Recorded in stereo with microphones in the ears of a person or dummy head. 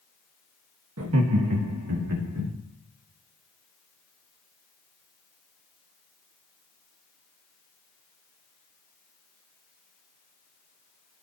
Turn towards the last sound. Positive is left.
turn(degrees=-85)